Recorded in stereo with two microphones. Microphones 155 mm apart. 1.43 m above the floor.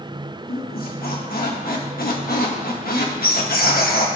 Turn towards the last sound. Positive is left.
turn(degrees=75)  # may be behind; listen again after turning